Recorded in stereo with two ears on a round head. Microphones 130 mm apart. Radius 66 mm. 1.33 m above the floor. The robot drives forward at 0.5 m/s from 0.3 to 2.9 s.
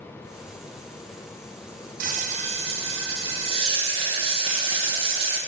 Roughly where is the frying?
Right.